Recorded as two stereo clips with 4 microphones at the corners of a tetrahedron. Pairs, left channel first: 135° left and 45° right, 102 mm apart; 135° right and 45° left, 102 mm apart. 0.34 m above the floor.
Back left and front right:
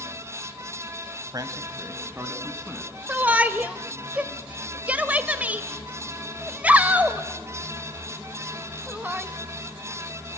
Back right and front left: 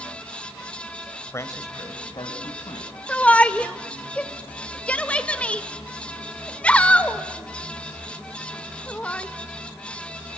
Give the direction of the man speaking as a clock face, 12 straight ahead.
3 o'clock.